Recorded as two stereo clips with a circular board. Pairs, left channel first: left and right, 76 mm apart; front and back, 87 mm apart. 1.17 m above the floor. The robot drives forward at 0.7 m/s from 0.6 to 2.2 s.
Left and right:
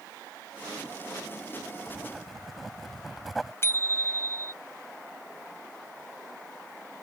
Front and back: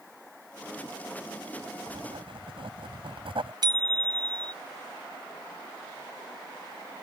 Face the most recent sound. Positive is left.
turn(degrees=145)